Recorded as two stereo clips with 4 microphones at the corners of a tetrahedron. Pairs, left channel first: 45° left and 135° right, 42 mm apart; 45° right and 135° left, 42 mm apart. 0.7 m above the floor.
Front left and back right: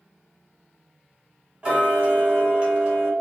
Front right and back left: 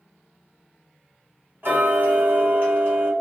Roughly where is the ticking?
Behind.